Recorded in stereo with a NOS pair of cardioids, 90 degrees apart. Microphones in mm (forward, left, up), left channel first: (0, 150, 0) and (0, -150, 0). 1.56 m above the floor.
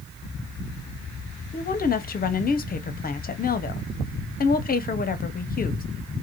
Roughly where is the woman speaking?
Ahead left.